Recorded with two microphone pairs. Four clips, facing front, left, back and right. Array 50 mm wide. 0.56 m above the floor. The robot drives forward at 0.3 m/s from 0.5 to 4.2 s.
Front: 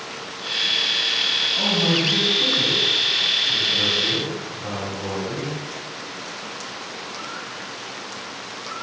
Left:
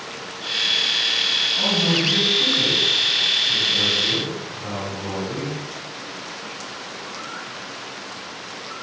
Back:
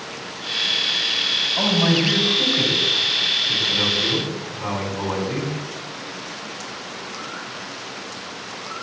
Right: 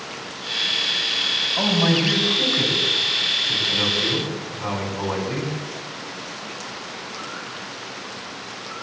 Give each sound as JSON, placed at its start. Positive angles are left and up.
{"t": 1.6, "sound": "a man speaking", "azimuth_deg": -120, "distance_m": 4.5}